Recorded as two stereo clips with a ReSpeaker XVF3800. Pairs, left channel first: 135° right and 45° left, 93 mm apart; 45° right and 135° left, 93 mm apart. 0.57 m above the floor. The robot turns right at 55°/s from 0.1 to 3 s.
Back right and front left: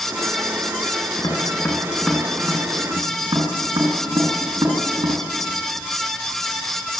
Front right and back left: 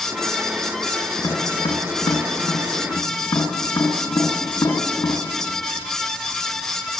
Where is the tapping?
95° right, 5 m; by 5.2 s 5° left, 5 m.